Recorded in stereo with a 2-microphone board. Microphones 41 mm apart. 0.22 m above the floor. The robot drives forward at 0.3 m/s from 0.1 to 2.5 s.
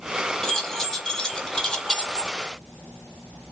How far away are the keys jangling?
About 0.9 m.